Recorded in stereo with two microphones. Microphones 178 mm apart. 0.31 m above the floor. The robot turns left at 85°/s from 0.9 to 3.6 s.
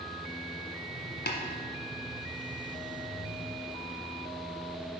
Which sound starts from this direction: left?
Tapping, at 1.3 s.